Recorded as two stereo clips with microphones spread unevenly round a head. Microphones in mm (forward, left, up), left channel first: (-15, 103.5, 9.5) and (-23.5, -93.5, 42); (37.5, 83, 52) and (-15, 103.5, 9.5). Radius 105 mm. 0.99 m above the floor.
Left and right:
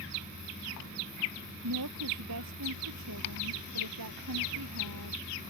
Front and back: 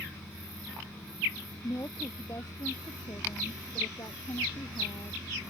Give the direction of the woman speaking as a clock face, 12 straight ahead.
3 o'clock.